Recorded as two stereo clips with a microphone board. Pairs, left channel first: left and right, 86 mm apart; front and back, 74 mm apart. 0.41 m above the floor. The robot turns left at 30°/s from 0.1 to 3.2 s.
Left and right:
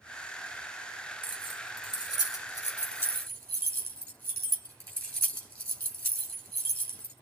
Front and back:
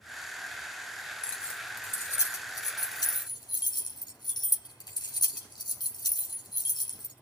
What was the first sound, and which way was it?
Keys jangling, 80° left.